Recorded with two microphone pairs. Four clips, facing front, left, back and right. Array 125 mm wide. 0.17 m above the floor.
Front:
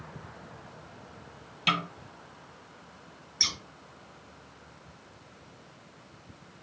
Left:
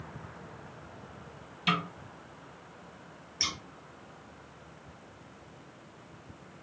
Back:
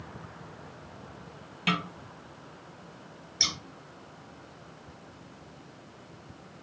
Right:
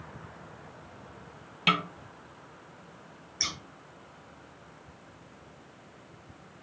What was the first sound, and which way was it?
A snare drum, 85° right.